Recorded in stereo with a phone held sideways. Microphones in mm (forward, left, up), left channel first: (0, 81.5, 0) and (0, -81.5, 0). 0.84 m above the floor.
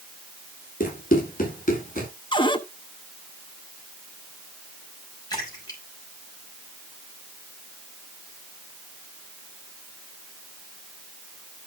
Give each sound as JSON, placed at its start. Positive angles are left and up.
{"t": 0.8, "sound": "running footsteps", "side_deg": 55, "distance_m": 9.5}
{"t": 2.3, "sound": "a cupboard door", "side_deg": 30, "distance_m": 1.1}
{"t": 5.3, "sound": "a splash", "side_deg": 25, "distance_m": 6.0}